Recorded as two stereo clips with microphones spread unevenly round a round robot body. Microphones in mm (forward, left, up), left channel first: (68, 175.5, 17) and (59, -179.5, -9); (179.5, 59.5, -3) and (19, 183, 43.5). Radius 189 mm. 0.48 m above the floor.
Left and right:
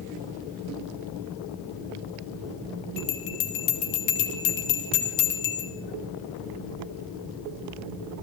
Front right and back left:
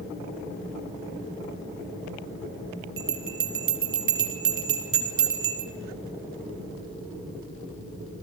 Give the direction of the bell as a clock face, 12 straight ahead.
8 o'clock.